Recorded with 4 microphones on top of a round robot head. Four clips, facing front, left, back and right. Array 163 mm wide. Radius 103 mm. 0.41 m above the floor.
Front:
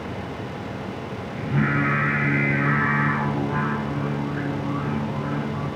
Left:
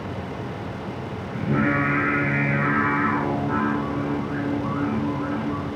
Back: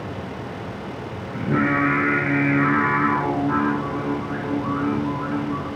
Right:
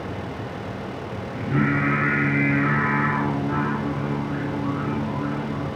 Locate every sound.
1.3 s singing: 145° left, 9 m